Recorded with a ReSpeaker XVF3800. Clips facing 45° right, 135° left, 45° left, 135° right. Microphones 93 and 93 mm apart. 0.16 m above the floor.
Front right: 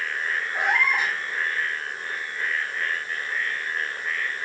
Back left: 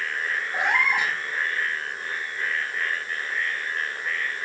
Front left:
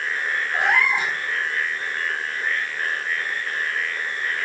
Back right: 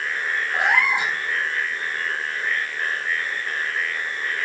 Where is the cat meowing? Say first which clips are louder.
Even, even; 155° left, 6 m.